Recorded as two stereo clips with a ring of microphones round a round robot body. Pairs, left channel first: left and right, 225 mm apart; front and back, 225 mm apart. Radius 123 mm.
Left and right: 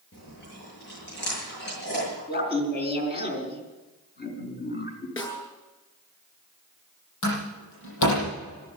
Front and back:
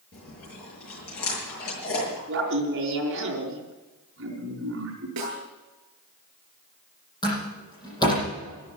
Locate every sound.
0.1 s chewing: 40° left, 7 m
2.3 s laughter: 135° left, 4.5 m
5.2 s a snare drum: 165° left, 7.5 m
7.2 s a door slam: 75° left, 9 m